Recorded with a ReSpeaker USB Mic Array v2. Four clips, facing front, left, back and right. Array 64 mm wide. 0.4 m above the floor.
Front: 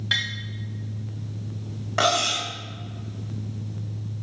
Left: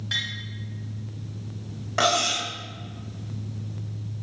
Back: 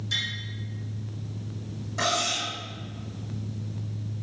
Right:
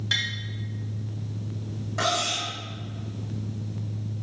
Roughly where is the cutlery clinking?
Ahead left.